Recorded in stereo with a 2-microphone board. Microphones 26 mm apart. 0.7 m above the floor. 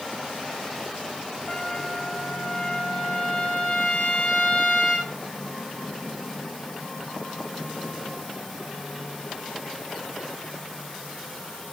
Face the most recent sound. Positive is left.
turn(degrees=35)  # may be behind; listen again after turning